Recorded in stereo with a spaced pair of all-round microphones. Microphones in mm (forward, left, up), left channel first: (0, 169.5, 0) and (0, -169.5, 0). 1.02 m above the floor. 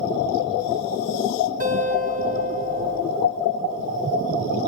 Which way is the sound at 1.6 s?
25° right (ahead or behind).